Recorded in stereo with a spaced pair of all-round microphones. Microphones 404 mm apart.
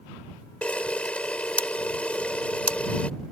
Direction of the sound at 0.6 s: 5° left (ahead or behind).